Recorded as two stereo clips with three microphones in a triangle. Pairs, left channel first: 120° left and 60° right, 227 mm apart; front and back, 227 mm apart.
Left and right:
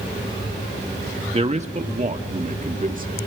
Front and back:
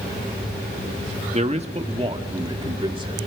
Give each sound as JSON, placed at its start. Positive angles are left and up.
{"t": 1.3, "sound": "a man speaking", "azimuth_deg": -120, "distance_m": 1.4}